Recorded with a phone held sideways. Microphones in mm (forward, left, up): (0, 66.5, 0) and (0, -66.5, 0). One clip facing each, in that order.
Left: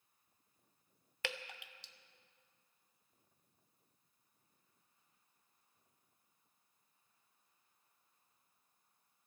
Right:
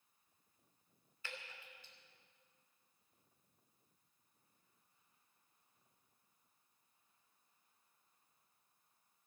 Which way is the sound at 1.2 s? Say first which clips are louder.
Left 8 dB; 85° left.